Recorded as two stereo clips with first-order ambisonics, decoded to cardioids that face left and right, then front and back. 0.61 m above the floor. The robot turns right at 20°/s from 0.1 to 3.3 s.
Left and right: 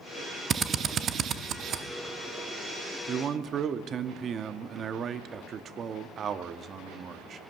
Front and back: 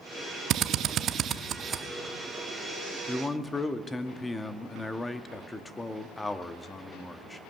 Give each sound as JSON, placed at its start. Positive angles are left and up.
{"t": 0.5, "sound": "a drill", "azimuth_deg": -150, "distance_m": 0.6}
{"t": 3.1, "sound": "a man speaking", "azimuth_deg": -70, "distance_m": 0.6}